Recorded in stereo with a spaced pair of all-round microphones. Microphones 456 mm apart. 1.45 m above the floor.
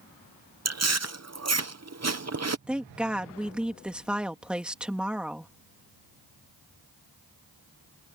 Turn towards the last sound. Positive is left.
turn(degrees=0)  # may be behind; listen again after turning